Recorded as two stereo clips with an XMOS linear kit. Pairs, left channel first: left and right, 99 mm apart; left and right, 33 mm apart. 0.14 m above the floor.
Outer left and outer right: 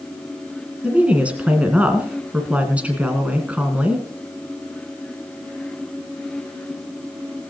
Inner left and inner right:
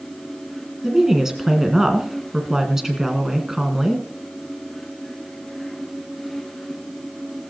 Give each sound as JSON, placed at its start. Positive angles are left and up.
{"t": 0.8, "sound": "a woman speaking", "side_deg": -15, "distance_m": 1.8}